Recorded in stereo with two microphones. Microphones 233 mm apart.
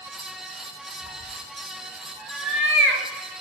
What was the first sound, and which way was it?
A cat meowing, 80° right.